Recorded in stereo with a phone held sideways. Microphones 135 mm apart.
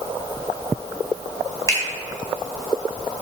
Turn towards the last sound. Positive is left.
turn(degrees=25)  # may be behind; listen again after turning